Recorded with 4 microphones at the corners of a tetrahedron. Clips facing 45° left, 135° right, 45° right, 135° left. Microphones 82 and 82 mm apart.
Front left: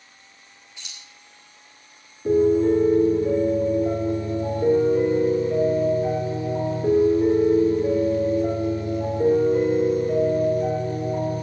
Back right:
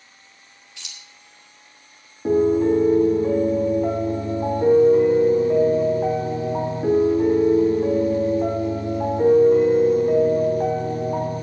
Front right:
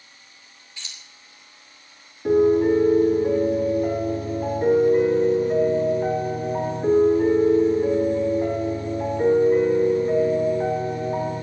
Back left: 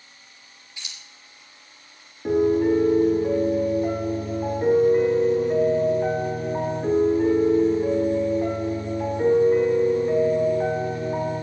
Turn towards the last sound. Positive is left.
turn(degrees=-135)